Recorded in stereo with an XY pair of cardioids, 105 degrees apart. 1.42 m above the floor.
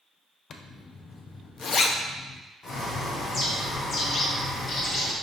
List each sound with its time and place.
0.5 s a zipper: 45° left, 0.5 m
2.6 s a bird: 45° left, 1.0 m